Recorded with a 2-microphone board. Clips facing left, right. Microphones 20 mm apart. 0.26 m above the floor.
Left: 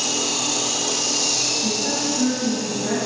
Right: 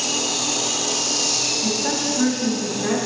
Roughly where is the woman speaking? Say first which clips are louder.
Even; right.